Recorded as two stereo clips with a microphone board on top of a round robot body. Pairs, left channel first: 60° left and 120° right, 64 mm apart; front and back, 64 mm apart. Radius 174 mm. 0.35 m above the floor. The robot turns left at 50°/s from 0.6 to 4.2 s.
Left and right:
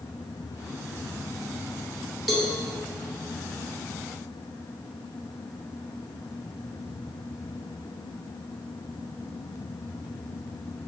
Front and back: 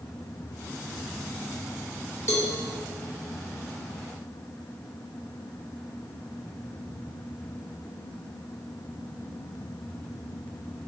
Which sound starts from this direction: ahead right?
A cowbell, at 2.3 s.